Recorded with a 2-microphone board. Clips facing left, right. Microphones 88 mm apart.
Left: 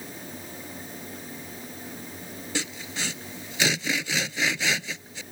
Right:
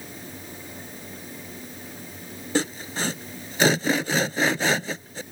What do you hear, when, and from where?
2.5 s sawing: 45° right (ahead or behind)